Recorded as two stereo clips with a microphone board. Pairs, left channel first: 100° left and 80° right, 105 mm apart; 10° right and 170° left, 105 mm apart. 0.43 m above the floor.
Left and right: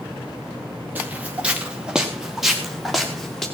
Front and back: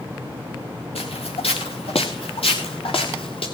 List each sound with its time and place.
0.9 s footsteps: 5° right, 2.5 m; by 3.5 s 15° left, 4 m